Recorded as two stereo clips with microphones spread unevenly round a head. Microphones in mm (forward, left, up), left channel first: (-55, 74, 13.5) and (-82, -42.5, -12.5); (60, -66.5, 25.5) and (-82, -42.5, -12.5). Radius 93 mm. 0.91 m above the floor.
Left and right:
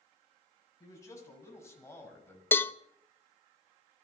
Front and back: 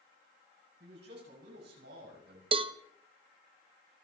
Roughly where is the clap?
No clap in this recording.